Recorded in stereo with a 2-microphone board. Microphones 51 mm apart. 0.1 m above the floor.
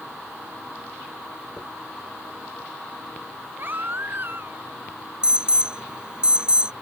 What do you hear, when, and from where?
1.6 s a dropped coin: 25° left (ahead or behind)
3.6 s a baby crying: 45° right (ahead or behind)
5.2 s an alarm: 20° right (ahead or behind)